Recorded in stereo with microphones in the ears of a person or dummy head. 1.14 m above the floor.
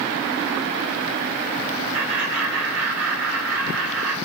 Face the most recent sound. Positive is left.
turn(degrees=-60)  # may be behind; listen again after turning